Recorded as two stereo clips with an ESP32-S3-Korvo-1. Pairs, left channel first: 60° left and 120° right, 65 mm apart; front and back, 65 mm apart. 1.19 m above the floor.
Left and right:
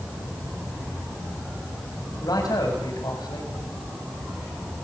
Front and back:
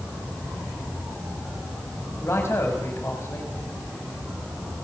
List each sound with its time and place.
2.2 s a man speaking: 50° left, 6.5 m